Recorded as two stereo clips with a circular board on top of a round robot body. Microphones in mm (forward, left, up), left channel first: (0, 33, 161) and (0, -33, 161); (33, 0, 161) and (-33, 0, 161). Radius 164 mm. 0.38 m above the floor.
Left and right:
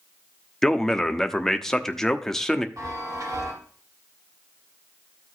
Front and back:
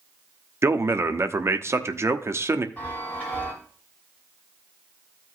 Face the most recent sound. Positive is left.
turn(degrees=-65)